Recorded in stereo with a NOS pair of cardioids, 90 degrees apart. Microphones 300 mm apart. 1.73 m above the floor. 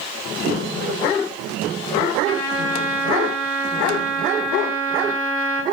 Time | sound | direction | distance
2.2 | a trumpet | 50° right | 2 m